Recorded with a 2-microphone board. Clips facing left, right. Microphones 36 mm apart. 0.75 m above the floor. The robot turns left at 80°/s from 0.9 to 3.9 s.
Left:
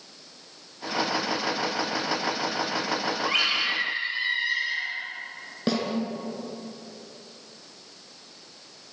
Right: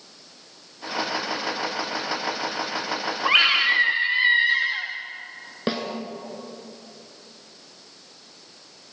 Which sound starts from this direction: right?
A snare drum, at 5.7 s.